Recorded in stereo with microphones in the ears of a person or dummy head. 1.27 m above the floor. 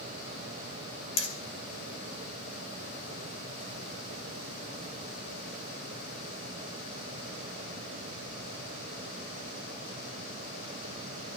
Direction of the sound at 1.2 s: 35° left (ahead or behind).